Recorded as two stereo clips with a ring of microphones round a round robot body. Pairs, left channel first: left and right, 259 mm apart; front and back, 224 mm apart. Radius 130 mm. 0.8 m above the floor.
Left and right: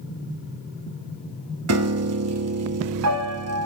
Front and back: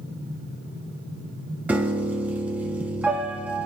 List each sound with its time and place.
1.7 s a piano: 95° right, 1.1 m